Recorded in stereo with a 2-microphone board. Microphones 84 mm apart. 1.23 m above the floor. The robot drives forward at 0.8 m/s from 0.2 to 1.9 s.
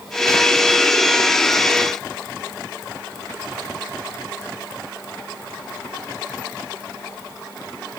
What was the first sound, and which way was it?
Only background noise.